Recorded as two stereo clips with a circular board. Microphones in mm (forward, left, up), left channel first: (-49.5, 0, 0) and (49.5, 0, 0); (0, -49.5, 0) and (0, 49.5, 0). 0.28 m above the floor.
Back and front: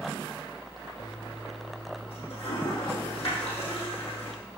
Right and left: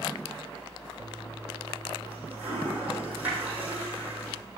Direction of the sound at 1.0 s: 165° left.